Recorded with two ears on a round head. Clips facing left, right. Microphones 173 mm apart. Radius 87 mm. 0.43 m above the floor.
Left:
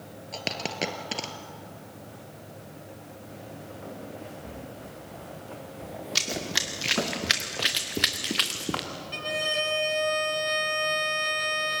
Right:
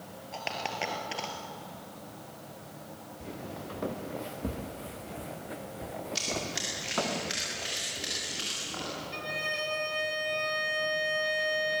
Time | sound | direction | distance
0.3 | a dropped coin | 50° left (ahead or behind) | 2.0 m
3.2 | footsteps | 70° right (ahead or behind) | 3.5 m
6.2 | running footsteps | 75° left (ahead or behind) | 3 m
9.1 | a violin | 65° left (ahead or behind) | 1.8 m